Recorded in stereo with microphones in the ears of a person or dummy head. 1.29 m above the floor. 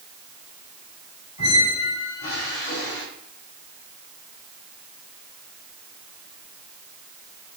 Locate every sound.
1.4 s a squeak: 50° left (ahead or behind), 6 m